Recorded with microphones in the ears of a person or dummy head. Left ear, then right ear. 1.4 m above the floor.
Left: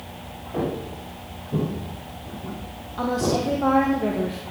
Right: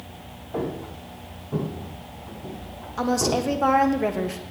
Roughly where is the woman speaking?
Right.